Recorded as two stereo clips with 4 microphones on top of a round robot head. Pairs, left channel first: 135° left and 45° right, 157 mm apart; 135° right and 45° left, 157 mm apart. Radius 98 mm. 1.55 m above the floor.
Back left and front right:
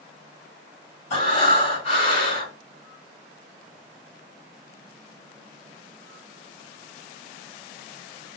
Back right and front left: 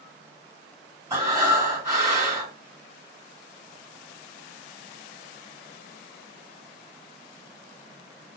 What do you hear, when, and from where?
1.1 s breathing: 115° left, 3.5 m